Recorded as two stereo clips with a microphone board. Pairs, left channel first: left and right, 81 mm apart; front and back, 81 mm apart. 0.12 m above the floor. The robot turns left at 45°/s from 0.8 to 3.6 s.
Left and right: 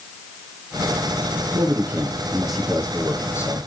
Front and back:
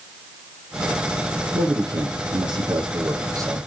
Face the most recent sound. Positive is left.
turn(degrees=130)